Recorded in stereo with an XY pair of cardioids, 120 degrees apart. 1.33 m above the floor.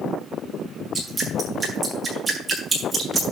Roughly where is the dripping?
Ahead right.